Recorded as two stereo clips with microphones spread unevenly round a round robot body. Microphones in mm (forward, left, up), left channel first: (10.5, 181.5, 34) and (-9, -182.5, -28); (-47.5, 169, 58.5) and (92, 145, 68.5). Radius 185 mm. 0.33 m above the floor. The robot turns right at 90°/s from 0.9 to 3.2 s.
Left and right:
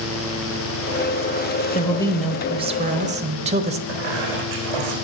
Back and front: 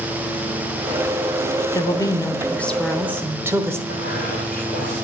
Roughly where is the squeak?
Right.